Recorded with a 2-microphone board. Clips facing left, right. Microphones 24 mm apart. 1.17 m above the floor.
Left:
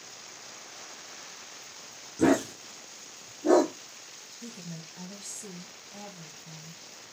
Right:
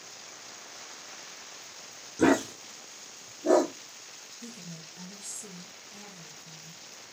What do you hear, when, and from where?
2.2 s a dog barking: 20° right (ahead or behind), 0.7 m; by 3.7 s 20° left (ahead or behind), 1.1 m
4.4 s a woman speaking: 40° left (ahead or behind), 1.2 m